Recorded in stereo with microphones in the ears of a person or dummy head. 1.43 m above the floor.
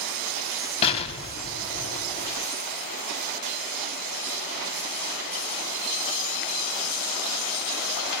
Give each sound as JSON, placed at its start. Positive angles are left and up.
{"t": 0.8, "sound": "an explosion", "side_deg": 30, "distance_m": 4.0}